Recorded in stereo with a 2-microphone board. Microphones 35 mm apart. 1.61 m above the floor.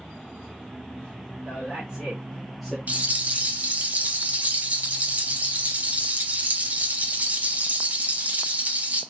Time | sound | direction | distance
1.4 | a man speaking | 20° right (ahead or behind) | 2.5 m
2.9 | a rattle | 45° right (ahead or behind) | 1.0 m